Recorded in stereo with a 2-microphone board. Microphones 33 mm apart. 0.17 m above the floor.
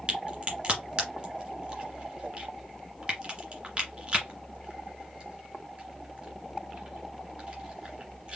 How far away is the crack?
About 2 m.